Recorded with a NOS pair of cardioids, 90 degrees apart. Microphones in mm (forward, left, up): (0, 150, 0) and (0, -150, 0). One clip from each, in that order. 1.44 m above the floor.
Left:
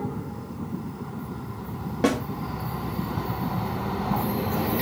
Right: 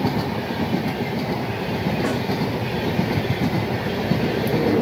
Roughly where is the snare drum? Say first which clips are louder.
Left 5 dB; ahead left.